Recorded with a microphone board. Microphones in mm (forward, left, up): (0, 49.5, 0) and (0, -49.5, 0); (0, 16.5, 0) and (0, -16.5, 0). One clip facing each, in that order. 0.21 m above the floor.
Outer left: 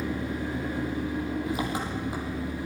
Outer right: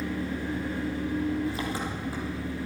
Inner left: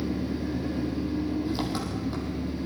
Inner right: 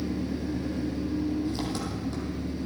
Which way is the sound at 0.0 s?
20° left (ahead or behind).